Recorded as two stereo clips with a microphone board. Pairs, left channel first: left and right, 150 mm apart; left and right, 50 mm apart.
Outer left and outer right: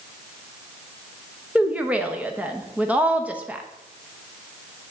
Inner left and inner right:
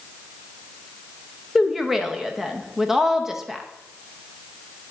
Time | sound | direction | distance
1.6 | a woman speaking | 10° right (ahead or behind) | 0.8 m